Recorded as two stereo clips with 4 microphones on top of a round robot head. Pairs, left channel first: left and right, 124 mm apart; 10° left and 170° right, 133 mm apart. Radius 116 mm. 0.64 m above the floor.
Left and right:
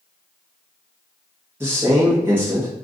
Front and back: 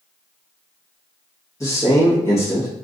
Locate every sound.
1.6 s a man speaking: 35° right, 1.2 m